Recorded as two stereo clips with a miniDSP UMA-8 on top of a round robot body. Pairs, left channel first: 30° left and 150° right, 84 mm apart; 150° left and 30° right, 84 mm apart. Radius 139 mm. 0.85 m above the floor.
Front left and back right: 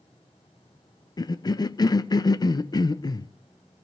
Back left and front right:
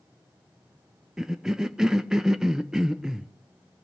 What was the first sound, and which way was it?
A cough, 50° left.